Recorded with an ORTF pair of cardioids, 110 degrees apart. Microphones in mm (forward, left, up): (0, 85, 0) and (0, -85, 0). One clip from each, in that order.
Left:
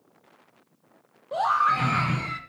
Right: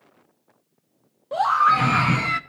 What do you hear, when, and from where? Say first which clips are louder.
1.3 s a scream: right 4 dB; 10° right, 1.3 m; by 2.4 s 60° right, 0.6 m